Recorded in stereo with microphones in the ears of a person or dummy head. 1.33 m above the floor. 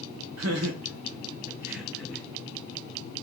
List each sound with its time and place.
0.4 s laughter: 80° right, 0.6 m; by 2.2 s 5° left (ahead or behind), 0.8 m